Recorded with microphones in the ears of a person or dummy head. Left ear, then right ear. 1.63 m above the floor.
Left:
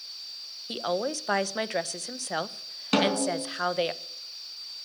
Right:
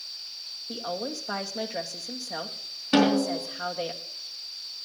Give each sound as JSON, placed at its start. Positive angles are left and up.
{"t": 0.7, "sound": "a woman speaking", "side_deg": 75, "distance_m": 0.7}
{"t": 2.9, "sound": "a snare drum", "side_deg": 40, "distance_m": 4.0}